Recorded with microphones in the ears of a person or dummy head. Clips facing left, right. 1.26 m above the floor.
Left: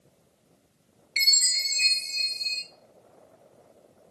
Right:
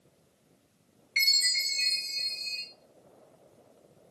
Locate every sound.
1.2 s a chime: 20° left (ahead or behind), 0.7 m